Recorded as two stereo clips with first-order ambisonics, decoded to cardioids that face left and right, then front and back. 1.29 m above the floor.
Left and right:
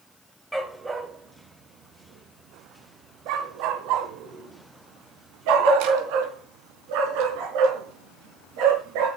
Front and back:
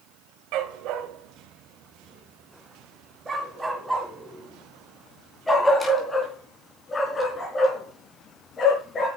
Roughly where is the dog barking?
Behind.